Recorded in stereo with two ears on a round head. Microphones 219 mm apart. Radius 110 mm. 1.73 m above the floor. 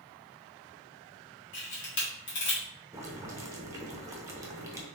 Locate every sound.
1.5 s a camera shutter: 50° left (ahead or behind), 1.7 m
2.9 s boiling: 10° right (ahead or behind), 0.6 m